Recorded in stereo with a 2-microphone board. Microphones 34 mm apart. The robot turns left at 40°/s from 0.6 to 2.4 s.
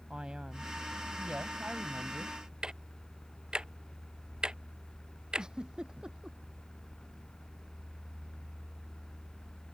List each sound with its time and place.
0.1 s a man speaking: 35° right; by 2.4 s 105° right
2.6 s ticking: 25° right (ahead or behind)
5.4 s a giggle: 25° right (ahead or behind)